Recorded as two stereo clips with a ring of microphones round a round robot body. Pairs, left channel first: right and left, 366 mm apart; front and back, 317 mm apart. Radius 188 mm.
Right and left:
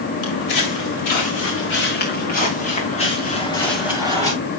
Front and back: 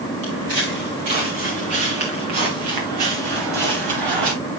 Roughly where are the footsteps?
Behind right.